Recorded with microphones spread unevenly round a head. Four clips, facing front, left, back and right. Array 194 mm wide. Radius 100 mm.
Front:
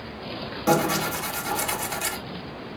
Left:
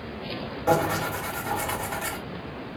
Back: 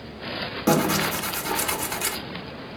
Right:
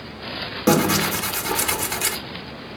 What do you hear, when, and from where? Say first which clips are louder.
0.7 s tearing paper: right 5 dB, back 1 dB; 95° right, 1.5 m